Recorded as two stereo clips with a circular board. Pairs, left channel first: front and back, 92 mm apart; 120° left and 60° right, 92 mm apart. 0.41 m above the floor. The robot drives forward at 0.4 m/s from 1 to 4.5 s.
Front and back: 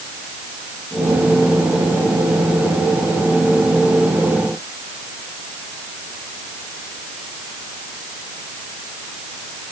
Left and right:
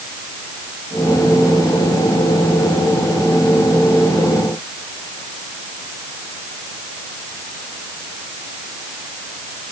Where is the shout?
I don't hear a shout.